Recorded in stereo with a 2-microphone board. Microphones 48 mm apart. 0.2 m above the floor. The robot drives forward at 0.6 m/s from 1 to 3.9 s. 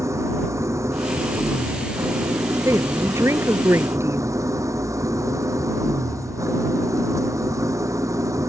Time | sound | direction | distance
0.0 | an engine running | 70° right (ahead or behind) | ?
2.6 | a woman speaking | 65° right (ahead or behind) | ?